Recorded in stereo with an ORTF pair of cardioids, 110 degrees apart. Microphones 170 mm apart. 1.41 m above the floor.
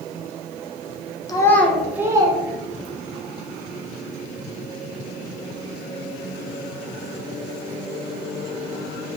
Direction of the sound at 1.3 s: 20° left.